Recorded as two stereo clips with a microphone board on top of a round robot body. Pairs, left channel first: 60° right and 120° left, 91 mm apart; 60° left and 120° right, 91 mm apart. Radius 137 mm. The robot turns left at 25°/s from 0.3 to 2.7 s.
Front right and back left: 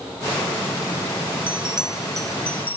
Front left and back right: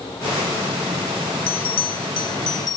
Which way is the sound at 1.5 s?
45° left.